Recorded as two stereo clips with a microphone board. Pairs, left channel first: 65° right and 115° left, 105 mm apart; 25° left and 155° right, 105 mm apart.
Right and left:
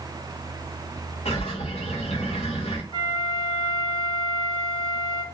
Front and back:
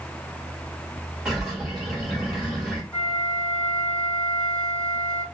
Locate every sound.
1.2 s a bird: 70° right, 1.0 m
2.9 s a flute: 55° right, 1.3 m